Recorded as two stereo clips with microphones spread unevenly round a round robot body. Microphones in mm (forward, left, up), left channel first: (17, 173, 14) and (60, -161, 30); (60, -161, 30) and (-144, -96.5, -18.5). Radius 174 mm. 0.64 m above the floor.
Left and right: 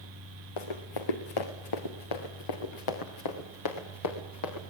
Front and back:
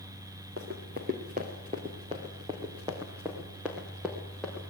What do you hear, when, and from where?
0.6 s running footsteps: 100° left, 3 m; by 4.7 s 70° left, 4.5 m